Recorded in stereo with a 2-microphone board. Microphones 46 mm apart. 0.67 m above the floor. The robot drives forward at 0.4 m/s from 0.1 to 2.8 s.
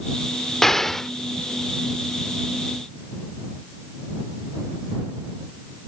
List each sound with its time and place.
0.6 s an explosion: 10° left (ahead or behind); by 1.1 s 5° left (ahead or behind)